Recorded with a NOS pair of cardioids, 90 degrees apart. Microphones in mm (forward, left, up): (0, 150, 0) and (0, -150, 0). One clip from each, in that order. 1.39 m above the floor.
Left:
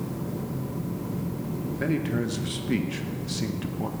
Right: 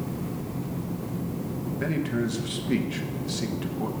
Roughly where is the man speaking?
Ahead.